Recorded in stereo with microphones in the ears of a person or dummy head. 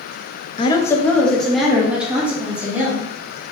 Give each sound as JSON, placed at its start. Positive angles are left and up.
{"t": 0.6, "sound": "a woman speaking", "side_deg": 25, "distance_m": 0.6}